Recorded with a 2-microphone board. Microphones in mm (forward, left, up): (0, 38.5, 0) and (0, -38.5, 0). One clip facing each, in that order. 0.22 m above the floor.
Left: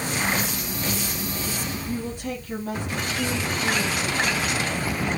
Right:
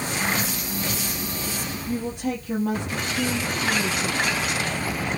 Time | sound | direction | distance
1.9 | a woman speaking | 60° right (ahead or behind) | 5 m